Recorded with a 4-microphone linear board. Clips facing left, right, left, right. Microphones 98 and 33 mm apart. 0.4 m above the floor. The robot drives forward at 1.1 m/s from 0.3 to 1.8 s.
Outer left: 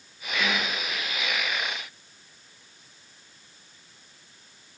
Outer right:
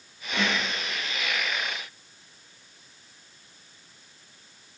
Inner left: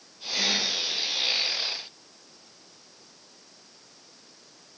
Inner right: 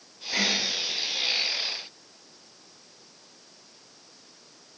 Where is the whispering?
65° right (ahead or behind), 4 m; by 0.7 s 60° right (ahead or behind), 4 m.